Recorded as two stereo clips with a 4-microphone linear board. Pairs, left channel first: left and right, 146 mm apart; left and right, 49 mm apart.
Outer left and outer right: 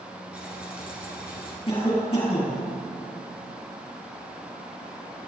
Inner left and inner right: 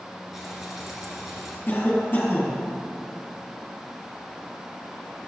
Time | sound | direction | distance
0.3 | frying | 10° right (ahead or behind) | 3 m
1.7 | a cough | 35° left (ahead or behind) | 4.5 m